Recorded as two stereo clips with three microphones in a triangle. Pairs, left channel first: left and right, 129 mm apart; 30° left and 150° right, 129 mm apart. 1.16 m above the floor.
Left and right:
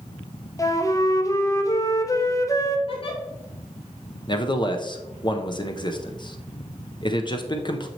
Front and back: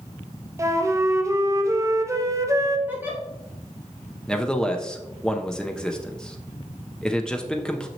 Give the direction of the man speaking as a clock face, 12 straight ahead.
8 o'clock.